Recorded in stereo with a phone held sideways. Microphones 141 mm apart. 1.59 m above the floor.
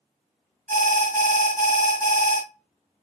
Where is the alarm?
65° right (ahead or behind), 1.5 m.